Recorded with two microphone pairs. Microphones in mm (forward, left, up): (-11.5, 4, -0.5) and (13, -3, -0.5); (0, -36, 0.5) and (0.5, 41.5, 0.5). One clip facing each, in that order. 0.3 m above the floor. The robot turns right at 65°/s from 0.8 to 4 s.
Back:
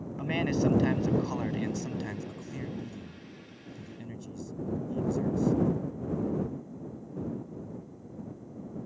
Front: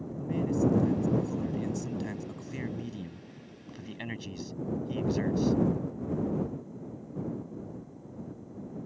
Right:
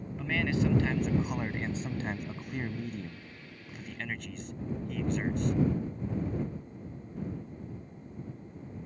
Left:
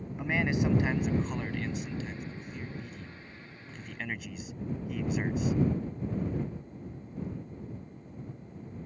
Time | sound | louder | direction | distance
0.2 | a man speaking | even, left 1 dB | 160° left | ?